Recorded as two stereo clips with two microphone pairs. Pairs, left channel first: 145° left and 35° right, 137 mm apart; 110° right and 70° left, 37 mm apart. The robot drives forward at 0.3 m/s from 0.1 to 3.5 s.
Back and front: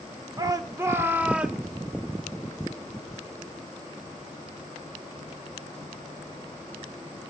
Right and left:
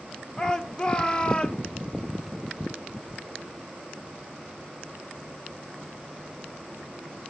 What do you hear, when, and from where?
0.4 s a shout: 60° right, 0.8 m; by 1.6 s 120° right, 0.8 m